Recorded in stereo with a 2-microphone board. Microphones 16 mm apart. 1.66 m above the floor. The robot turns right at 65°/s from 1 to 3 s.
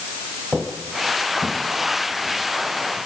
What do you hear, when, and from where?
0.5 s footsteps: 35° right (ahead or behind), 3 m; by 3.0 s 70° left (ahead or behind), 6 m